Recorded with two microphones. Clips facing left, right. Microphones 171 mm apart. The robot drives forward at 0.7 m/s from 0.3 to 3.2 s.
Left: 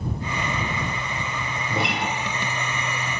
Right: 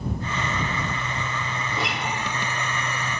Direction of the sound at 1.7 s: 60° left (ahead or behind).